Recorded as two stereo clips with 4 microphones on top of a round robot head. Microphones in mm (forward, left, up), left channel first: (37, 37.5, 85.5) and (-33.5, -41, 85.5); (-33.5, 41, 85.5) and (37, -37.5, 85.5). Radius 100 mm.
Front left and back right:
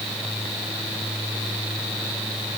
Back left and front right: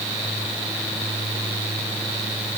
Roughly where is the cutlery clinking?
I don't hear cutlery clinking.